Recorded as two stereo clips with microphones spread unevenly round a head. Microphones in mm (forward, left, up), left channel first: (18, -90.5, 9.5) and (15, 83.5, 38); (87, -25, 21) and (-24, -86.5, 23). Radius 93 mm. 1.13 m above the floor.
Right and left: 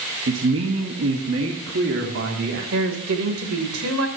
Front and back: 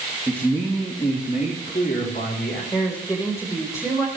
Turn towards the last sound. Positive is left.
turn(degrees=105)